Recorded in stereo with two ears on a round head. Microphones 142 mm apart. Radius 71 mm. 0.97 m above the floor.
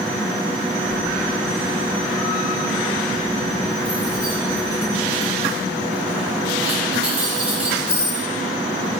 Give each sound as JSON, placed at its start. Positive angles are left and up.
{"t": 0.8, "sound": "keys jangling", "side_deg": -5, "distance_m": 2.0}